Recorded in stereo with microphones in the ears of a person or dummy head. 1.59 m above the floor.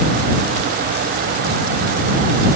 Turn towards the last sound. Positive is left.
No sound to turn to.